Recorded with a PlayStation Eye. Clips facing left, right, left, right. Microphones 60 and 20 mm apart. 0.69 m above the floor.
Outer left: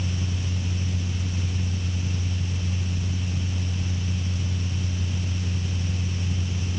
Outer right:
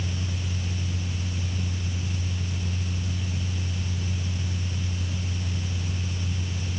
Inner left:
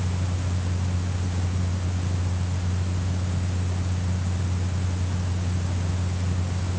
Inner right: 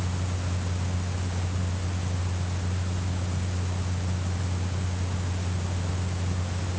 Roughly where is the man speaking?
I don't hear a man speaking.